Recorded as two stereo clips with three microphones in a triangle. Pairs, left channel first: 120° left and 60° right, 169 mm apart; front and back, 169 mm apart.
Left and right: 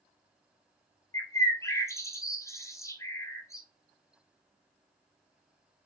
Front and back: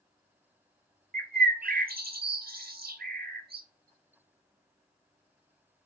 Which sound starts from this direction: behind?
A bird, at 1.1 s.